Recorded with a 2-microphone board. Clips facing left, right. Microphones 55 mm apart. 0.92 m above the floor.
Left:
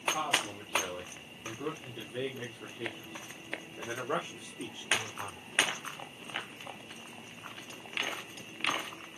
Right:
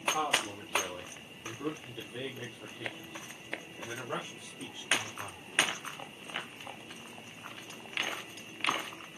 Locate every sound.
0.1 s a man speaking: 15° right (ahead or behind), 3 m; by 5.4 s 40° left (ahead or behind), 3.5 m